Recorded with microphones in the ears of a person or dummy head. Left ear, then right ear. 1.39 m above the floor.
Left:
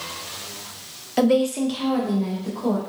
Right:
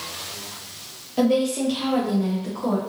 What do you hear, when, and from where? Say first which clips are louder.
1.2 s a woman speaking: left 2 dB; 50° left (ahead or behind), 0.5 m; by 2.8 s 25° right (ahead or behind), 0.9 m